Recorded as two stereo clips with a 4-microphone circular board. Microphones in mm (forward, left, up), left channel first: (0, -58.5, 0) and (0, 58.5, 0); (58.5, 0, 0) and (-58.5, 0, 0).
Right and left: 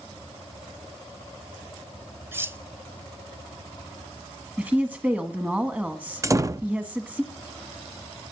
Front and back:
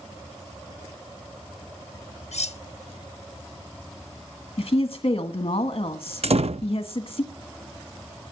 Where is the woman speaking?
20° left, 1.3 m.